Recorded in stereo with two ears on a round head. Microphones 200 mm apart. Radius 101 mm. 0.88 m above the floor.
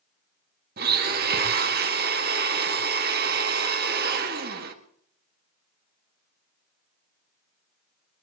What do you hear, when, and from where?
0.8 s a blender: 45° right (ahead or behind), 1.7 m